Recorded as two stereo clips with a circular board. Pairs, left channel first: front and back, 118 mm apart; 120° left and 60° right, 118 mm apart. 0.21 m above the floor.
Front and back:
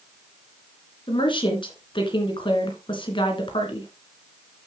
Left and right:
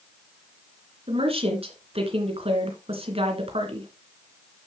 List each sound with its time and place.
1.1 s a woman speaking: 40° right, 2.5 m